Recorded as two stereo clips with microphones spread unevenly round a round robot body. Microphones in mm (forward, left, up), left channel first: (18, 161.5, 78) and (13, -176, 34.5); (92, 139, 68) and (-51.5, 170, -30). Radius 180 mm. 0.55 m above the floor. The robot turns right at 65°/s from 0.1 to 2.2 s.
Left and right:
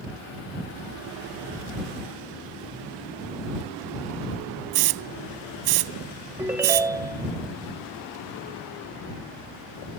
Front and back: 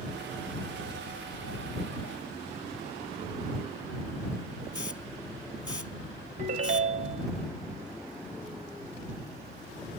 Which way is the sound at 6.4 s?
170° right.